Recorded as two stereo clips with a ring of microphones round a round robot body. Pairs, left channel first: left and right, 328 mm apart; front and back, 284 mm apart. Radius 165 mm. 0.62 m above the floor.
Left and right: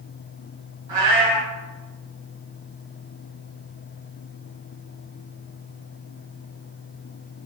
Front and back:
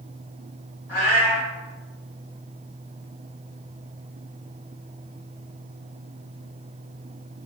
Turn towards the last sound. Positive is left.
turn(degrees=-100)